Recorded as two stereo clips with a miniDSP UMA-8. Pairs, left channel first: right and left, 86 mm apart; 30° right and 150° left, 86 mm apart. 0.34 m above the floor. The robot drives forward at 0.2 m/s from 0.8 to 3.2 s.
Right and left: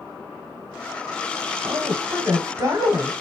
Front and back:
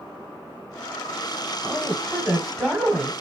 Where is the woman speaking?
50° left, 1.1 m; by 3.1 s 70° left, 1.0 m.